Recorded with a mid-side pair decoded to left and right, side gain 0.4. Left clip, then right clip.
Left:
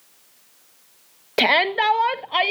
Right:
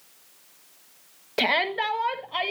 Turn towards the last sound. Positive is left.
turn(degrees=60)